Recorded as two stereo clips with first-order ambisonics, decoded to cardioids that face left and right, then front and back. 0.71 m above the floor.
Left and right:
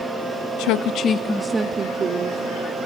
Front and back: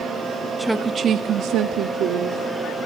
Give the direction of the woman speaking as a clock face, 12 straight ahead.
9 o'clock.